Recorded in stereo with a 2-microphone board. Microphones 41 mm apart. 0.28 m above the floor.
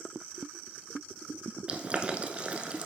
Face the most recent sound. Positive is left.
turn(degrees=-35)  # may be behind; listen again after turning